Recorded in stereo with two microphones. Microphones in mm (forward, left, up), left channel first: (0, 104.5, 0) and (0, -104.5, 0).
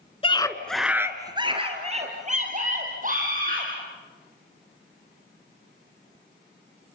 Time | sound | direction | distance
0.2 | a scream | 25° left (ahead or behind) | 1.3 m